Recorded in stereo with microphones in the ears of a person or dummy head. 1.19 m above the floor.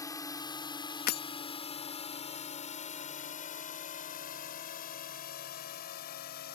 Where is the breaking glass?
50° left (ahead or behind).